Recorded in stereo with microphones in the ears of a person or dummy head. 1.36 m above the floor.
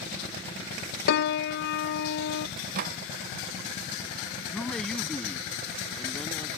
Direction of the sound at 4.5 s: Centre (ahead or behind).